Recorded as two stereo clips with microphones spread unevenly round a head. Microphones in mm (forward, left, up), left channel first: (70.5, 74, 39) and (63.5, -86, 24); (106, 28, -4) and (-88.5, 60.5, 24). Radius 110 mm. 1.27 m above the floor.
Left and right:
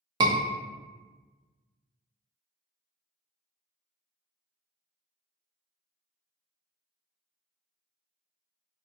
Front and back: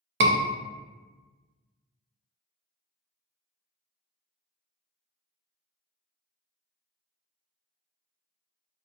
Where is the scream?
150° right, 0.6 m.